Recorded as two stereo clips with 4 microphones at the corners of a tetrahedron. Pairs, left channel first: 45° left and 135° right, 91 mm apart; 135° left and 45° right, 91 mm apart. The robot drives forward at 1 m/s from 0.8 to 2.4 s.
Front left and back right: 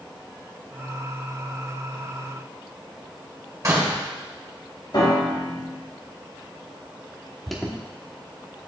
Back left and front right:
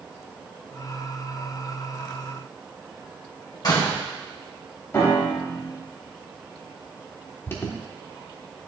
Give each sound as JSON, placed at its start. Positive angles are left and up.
{"t": 3.6, "sound": "a door slam", "azimuth_deg": 175, "distance_m": 1.8}
{"t": 4.9, "sound": "a piano", "azimuth_deg": 75, "distance_m": 2.5}
{"t": 7.5, "sound": "an alarm", "azimuth_deg": 135, "distance_m": 1.0}